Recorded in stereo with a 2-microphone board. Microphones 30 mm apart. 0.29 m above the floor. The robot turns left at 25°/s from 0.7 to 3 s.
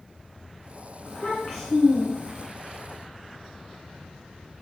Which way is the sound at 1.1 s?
30° left.